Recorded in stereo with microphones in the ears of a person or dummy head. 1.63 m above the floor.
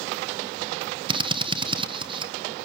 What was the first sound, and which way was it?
A drill, 35° right (ahead or behind).